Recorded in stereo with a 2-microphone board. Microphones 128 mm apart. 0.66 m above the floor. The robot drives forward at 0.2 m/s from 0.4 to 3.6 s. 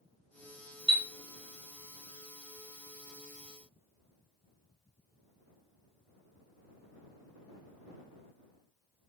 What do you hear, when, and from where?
0.9 s a chime: 40° right (ahead or behind), 0.5 m